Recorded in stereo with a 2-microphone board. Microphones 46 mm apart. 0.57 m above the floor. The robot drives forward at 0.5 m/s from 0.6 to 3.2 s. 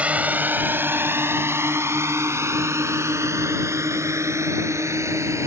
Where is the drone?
30° right (ahead or behind); by 5.5 s 80° right.